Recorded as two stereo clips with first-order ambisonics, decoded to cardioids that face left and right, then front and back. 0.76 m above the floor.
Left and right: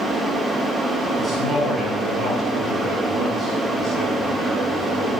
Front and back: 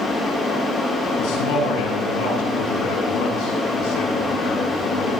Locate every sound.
1.2 s a man speaking: straight ahead, 8.5 m